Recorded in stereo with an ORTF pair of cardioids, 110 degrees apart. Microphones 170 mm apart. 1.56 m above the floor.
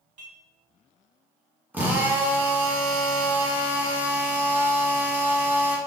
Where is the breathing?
No breathing in this recording.